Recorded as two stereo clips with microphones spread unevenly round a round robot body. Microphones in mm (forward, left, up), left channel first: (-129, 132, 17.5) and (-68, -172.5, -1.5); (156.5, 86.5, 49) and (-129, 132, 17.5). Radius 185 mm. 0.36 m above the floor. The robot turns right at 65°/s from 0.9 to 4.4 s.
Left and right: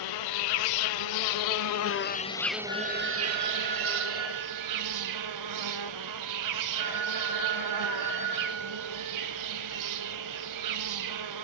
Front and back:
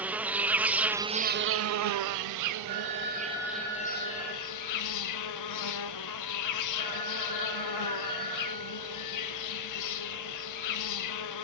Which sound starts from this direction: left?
An insect, at 0.0 s.